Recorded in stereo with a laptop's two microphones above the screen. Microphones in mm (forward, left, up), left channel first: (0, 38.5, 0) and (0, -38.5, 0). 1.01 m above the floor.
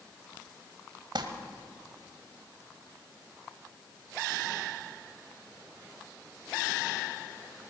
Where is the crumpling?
75° right (ahead or behind), 1.9 m.